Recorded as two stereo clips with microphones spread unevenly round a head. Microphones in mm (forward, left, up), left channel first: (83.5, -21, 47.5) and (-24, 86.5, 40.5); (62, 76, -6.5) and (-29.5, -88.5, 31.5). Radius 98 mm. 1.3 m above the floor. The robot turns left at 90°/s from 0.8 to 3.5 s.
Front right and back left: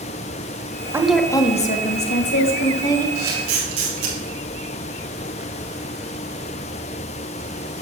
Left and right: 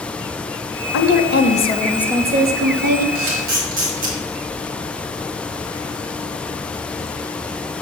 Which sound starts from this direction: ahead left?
A woman speaking, at 0.9 s.